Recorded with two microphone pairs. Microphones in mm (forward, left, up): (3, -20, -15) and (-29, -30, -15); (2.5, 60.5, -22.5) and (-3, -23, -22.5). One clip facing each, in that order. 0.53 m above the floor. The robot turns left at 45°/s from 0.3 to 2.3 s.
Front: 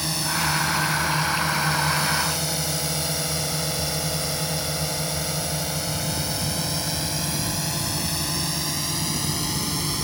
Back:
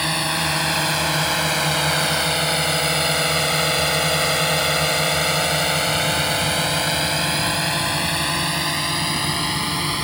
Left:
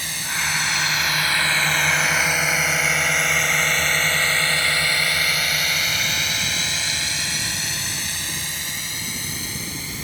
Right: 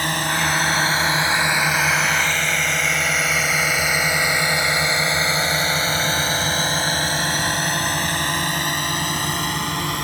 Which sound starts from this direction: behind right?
A drone, at 0.0 s.